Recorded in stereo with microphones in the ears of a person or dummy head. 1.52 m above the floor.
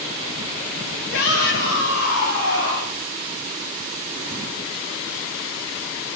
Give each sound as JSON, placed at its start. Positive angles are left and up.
{"t": 1.1, "sound": "a shout", "side_deg": 90, "distance_m": 7.5}